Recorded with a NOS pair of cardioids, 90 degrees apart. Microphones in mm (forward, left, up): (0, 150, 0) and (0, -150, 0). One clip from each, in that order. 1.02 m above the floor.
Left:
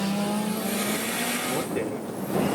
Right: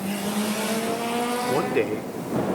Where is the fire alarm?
No fire alarm in this recording.